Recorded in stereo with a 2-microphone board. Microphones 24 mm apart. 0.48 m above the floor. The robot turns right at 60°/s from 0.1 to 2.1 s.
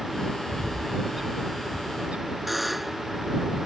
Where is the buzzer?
5° right (ahead or behind).